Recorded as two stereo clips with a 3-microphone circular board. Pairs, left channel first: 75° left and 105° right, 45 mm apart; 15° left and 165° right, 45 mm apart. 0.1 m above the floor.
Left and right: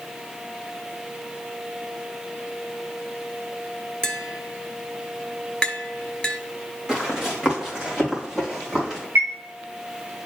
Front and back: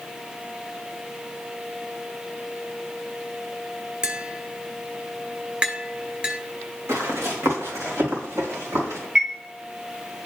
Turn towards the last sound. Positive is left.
turn(degrees=-105)